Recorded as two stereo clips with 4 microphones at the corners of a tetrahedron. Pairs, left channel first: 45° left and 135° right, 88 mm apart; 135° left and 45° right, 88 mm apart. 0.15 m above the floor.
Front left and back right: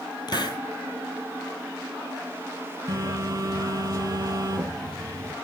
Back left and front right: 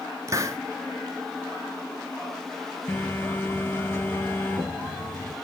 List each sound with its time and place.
0.3 s a hiss: 10° left, 0.8 m
2.9 s a phone buzzing: 175° right, 1.6 m